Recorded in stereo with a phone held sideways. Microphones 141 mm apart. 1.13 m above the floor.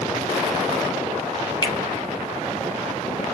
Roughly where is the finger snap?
Left.